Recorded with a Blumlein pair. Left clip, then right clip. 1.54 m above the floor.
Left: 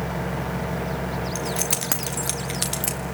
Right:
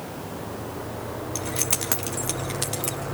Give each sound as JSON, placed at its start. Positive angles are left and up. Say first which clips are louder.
{"t": 1.4, "sound": "keys jangling", "louder": "even", "azimuth_deg": -5, "distance_m": 2.5}